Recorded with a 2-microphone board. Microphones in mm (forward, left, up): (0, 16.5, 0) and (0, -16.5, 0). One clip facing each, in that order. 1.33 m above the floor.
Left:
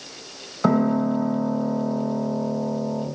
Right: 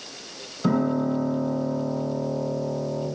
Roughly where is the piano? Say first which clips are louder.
Left 3 dB; left.